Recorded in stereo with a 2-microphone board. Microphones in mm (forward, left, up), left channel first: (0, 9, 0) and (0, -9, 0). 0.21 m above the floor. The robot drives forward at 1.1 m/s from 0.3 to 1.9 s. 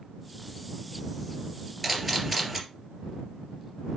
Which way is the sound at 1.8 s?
Centre (ahead or behind).